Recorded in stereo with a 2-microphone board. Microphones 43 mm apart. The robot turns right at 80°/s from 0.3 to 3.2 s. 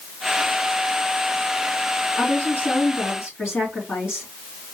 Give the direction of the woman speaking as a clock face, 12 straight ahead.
12 o'clock.